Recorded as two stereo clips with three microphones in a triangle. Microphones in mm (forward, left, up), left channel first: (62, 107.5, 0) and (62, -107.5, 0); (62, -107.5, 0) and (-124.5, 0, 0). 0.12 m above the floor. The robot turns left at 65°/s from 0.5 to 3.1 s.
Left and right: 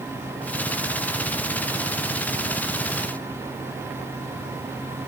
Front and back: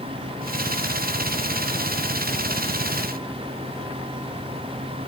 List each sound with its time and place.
Only background noise.